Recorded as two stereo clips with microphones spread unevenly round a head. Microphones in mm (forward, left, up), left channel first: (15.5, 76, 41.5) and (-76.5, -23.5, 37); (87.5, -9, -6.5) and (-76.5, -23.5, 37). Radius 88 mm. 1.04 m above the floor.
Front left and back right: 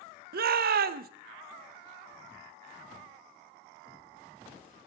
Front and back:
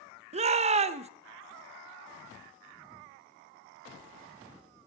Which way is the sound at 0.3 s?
115° right.